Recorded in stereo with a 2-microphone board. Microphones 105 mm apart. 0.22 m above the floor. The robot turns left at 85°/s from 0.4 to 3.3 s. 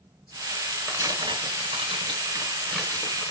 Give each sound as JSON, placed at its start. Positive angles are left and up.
{"t": 0.9, "sound": "tearing paper", "side_deg": -25, "distance_m": 1.0}